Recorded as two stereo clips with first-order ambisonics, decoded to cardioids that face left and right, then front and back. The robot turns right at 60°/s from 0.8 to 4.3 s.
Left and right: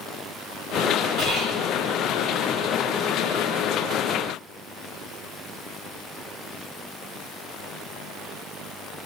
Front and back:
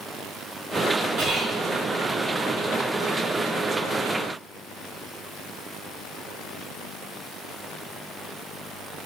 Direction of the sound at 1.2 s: 140° right.